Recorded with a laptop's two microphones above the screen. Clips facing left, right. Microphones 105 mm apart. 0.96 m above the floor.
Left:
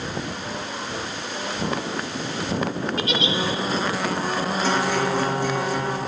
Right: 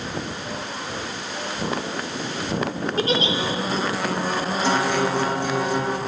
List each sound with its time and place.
3.0 s a giggle: 35° right (ahead or behind), 3 m
4.6 s a guitar: 20° right (ahead or behind), 2.5 m